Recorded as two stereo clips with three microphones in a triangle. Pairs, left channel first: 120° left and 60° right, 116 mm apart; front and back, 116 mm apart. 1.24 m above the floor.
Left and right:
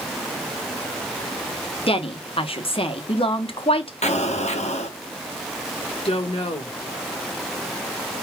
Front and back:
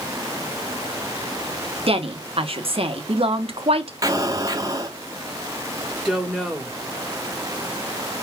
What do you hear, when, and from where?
1.9 s a woman speaking: 150° left, 1.1 m
4.0 s an explosion: 120° left, 1.1 m
6.0 s a woman speaking: 90° left, 1.7 m